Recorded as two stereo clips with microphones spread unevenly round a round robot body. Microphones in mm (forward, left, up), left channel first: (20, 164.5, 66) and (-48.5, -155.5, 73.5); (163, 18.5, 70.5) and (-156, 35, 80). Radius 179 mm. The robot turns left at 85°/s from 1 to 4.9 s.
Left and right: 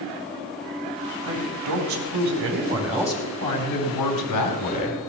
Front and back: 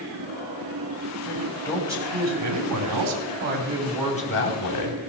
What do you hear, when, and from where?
1.2 s a man speaking: 50° right, 3 m; by 5.0 s straight ahead, 3 m